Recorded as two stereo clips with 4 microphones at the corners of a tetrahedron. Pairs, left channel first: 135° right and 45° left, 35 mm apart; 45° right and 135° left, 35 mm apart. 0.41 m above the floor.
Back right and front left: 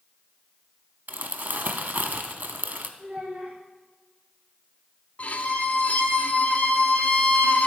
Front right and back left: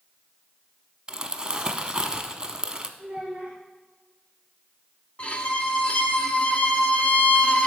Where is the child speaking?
85° left, 2.5 m.